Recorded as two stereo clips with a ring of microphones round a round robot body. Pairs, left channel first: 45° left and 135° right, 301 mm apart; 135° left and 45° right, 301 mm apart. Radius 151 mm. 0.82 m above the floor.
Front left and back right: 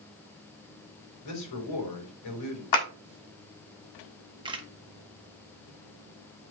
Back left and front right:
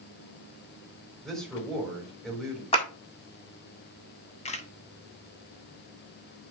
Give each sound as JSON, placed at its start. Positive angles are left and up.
{"t": 1.2, "sound": "a man speaking", "azimuth_deg": 45, "distance_m": 3.5}
{"t": 2.7, "sound": "a clap", "azimuth_deg": 65, "distance_m": 1.8}
{"t": 4.5, "sound": "a camera shutter", "azimuth_deg": 170, "distance_m": 1.0}